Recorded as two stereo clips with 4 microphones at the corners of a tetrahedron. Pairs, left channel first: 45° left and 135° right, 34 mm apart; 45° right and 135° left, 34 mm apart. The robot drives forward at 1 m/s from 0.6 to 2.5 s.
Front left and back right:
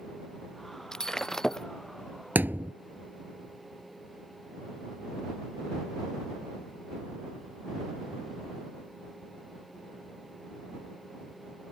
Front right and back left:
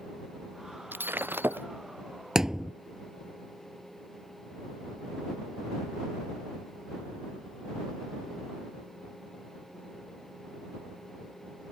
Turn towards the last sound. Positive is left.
turn(degrees=-150)